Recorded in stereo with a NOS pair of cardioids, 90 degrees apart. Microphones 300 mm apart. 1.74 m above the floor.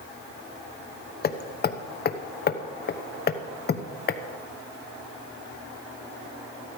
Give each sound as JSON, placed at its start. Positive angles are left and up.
{"t": 1.2, "sound": "hammering", "azimuth_deg": 35, "distance_m": 1.0}